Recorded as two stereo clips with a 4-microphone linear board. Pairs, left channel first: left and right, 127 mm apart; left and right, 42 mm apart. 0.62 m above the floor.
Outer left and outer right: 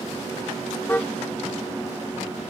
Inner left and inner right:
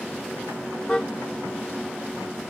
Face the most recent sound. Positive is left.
turn(degrees=15)  # may be behind; listen again after turning